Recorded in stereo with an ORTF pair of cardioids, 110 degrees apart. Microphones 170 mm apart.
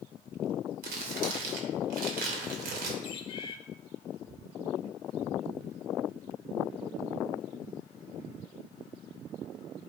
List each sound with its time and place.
0.8 s crumpling: 65° right, 2.5 m
3.0 s a bird: 35° left, 1.5 m